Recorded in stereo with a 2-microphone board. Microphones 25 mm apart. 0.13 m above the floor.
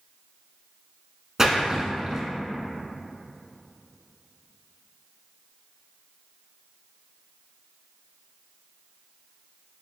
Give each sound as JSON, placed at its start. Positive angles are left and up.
{"t": 1.4, "sound": "a splash", "side_deg": -20, "distance_m": 0.9}